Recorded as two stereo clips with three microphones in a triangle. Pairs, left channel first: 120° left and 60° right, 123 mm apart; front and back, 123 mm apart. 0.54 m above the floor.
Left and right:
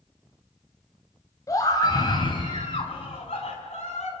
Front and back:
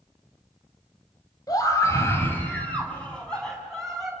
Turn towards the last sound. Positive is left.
turn(degrees=90)